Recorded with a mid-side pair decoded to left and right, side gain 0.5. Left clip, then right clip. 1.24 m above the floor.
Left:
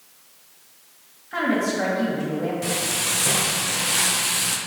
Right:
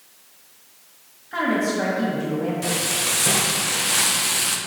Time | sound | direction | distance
1.3 | a woman speaking | 10° left | 1.8 m
2.6 | frying | 10° right | 0.6 m